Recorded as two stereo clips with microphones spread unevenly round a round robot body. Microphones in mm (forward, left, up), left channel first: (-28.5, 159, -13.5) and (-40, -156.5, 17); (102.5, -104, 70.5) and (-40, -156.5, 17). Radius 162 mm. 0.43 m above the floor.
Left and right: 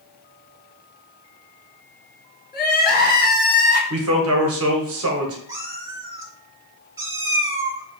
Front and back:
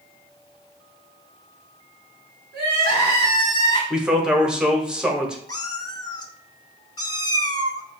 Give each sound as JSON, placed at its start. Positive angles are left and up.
{"t": 2.5, "sound": "crying", "azimuth_deg": 150, "distance_m": 1.3}
{"t": 3.9, "sound": "a man speaking", "azimuth_deg": -110, "distance_m": 1.2}
{"t": 5.5, "sound": "a cat meowing", "azimuth_deg": -20, "distance_m": 0.5}